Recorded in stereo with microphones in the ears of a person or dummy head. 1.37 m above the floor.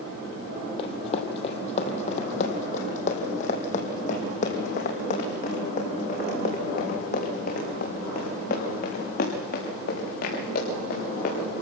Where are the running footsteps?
40° left (ahead or behind), 3 m; by 11.4 s 55° left (ahead or behind), 8.5 m.